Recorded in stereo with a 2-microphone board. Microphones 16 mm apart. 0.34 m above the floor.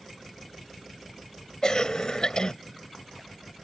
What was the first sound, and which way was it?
A cough, 50° left (ahead or behind).